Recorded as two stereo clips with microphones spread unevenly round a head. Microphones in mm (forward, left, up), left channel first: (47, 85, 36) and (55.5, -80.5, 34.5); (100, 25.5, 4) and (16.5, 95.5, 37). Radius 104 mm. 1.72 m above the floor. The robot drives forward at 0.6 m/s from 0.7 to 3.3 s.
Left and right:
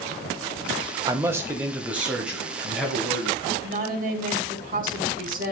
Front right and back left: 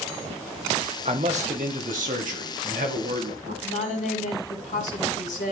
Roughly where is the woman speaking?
Ahead right.